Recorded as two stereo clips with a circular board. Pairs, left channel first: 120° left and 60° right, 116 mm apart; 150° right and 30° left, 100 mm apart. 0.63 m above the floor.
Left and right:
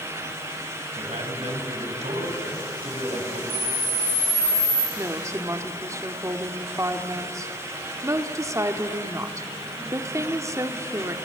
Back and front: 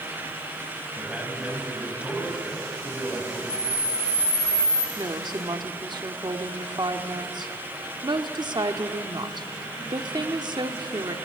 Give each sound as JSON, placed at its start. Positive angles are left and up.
{"t": 1.0, "sound": "a man speaking", "azimuth_deg": -50, "distance_m": 4.0}
{"t": 3.5, "sound": "a camera shutter", "azimuth_deg": 95, "distance_m": 3.0}
{"t": 5.0, "sound": "a woman speaking", "azimuth_deg": 0, "distance_m": 1.3}